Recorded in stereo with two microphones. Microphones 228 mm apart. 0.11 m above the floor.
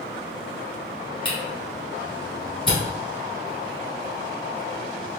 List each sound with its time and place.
1.2 s a camera shutter: 25° left (ahead or behind), 1.9 m